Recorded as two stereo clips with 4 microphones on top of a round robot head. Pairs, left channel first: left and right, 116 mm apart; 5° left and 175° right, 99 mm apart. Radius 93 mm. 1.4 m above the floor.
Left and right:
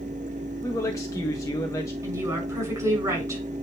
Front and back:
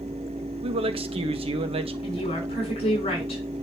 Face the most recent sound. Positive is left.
turn(degrees=-30)